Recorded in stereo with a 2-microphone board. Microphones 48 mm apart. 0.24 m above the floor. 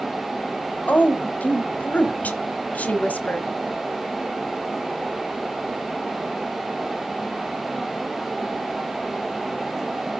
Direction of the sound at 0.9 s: 30° left (ahead or behind).